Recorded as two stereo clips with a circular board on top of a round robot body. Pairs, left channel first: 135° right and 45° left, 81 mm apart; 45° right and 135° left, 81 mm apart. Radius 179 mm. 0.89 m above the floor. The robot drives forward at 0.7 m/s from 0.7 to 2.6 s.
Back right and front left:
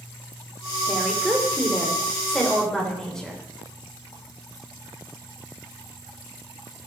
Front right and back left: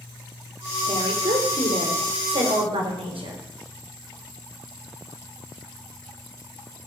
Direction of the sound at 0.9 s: 125° left.